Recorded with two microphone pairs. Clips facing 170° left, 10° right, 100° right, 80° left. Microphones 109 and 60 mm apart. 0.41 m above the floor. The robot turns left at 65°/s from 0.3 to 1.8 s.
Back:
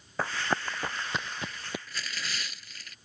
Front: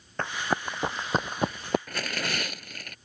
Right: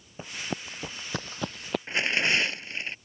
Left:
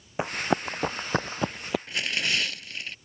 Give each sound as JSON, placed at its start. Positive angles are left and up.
{"t": 0.2, "sound": "running footsteps", "azimuth_deg": 85}
{"t": 1.9, "sound": "tearing paper", "azimuth_deg": -40}